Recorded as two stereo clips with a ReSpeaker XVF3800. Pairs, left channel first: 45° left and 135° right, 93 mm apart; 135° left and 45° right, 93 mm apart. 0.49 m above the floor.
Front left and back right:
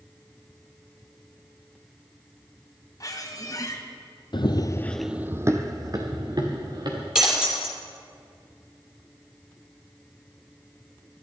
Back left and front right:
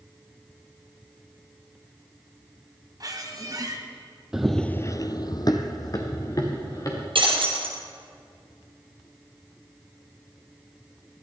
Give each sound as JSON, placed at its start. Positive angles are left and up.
{"t": 3.0, "sound": "a squeak", "azimuth_deg": 0, "distance_m": 1.5}
{"t": 4.3, "sound": "running footsteps", "azimuth_deg": 40, "distance_m": 0.9}
{"t": 7.2, "sound": "breaking glass", "azimuth_deg": -55, "distance_m": 3.0}